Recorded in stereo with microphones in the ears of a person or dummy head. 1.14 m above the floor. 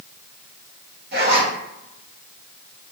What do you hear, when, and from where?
1.1 s a zipper: 45° right (ahead or behind), 0.8 m